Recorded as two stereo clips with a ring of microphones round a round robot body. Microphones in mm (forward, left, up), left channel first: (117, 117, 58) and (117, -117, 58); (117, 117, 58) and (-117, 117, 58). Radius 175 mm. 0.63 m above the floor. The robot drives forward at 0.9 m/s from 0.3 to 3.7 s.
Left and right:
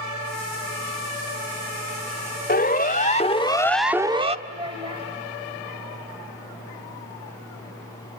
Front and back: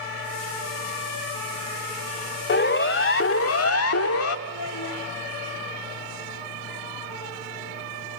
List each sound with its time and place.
2.5 s a siren: 40° left, 2.5 m; by 4.4 s 25° right, 1.4 m
4.5 s a child speaking: 20° right, 2 m